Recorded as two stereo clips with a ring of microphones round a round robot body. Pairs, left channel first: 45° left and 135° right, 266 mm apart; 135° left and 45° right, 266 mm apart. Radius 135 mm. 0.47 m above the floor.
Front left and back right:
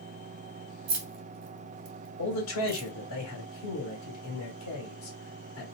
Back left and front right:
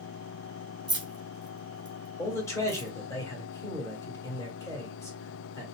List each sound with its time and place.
0.9 s keys jangling: 120° right, 1.0 m
2.2 s a man speaking: 60° left, 1.8 m